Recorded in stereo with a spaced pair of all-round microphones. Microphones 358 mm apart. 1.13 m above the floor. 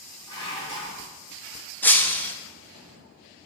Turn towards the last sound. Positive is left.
turn(degrees=5)  # may be behind; listen again after turning